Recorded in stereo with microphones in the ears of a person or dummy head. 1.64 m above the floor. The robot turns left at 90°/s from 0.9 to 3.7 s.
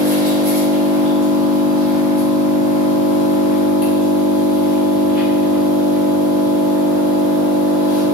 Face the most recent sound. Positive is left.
turn(degrees=25)